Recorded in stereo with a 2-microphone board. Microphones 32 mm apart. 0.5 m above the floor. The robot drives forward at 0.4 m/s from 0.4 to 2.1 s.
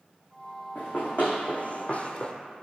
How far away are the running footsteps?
About 1.6 m.